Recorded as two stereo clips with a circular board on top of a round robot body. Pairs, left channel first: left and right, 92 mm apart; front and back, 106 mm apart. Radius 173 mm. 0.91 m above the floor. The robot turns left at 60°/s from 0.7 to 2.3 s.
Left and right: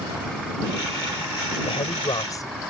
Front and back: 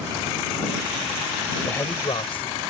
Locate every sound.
1.6 s a man speaking: 75° left; by 2.6 s 35° left